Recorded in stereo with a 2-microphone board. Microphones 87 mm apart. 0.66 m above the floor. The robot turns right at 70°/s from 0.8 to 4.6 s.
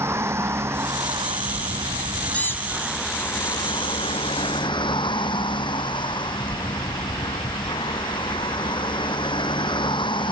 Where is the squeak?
15° left; by 2.9 s 55° left.